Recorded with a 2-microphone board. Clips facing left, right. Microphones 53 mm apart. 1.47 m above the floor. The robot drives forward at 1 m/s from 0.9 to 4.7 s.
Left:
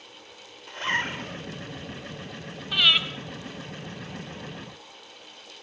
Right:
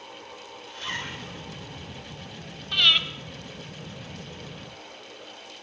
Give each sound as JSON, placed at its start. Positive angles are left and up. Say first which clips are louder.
{"t": 0.7, "sound": "a zipper", "louder": "left 7 dB", "side_deg": 40, "distance_m": 1.9}
{"t": 2.7, "sound": "breathing", "louder": "even", "side_deg": 10, "distance_m": 2.5}